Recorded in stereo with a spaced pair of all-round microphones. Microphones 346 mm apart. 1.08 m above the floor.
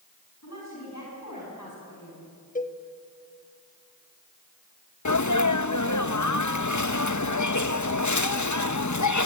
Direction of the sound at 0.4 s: 50° left (ahead or behind).